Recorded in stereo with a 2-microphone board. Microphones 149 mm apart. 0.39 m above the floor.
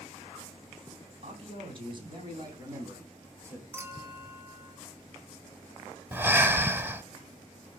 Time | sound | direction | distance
1.2 | a man speaking | 45° right (ahead or behind) | 3 m
3.7 | a clink | 15° right (ahead or behind) | 2 m
6.1 | breathing | 15° right (ahead or behind) | 0.8 m